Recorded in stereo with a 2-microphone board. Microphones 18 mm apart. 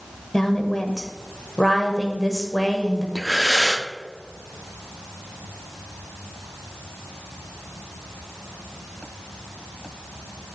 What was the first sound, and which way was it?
A woman speaking, 25° left (ahead or behind).